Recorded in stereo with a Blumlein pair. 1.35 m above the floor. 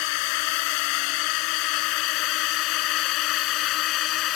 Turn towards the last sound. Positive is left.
turn(degrees=35)